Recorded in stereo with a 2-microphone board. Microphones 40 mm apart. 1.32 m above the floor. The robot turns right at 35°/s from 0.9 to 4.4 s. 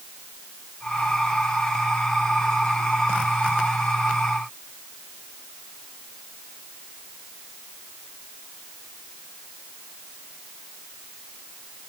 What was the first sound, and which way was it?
Only background noise.